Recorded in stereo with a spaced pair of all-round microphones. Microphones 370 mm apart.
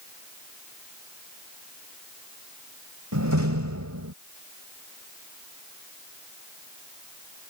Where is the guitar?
I don't hear a guitar.